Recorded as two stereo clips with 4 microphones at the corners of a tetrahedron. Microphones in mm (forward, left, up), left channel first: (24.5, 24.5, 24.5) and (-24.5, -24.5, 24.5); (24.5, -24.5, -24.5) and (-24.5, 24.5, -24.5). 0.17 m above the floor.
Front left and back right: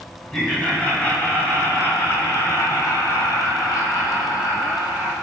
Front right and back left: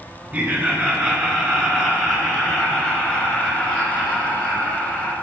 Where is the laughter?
100° left, 1.6 m; by 5.1 s 30° left, 3 m.